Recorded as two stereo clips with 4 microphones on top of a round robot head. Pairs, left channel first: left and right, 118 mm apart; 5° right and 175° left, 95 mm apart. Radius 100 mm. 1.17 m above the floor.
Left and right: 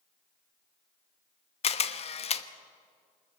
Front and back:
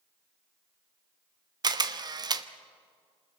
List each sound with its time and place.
1.6 s a camera shutter: 125° left, 1.1 m